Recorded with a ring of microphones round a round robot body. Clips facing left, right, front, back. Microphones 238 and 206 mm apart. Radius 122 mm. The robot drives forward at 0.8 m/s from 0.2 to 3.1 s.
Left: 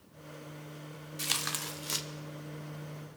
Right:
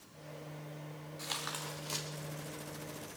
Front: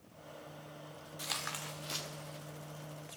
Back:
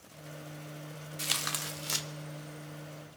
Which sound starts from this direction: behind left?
Tearing paper, at 1.2 s.